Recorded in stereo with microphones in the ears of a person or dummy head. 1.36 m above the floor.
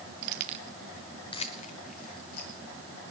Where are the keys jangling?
45° right (ahead or behind), 0.7 m; by 3.1 s 50° left (ahead or behind), 2 m.